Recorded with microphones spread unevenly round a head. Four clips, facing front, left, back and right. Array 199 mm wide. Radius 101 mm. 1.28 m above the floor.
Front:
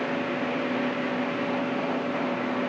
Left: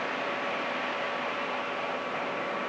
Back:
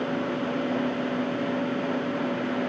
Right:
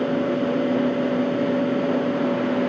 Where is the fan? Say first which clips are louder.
Right 11 dB, even; 100° right.